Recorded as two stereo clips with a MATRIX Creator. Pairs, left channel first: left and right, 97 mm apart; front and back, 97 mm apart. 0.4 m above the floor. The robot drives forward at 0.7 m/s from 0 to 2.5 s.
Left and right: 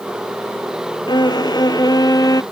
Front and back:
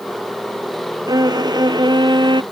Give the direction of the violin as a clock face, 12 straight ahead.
8 o'clock.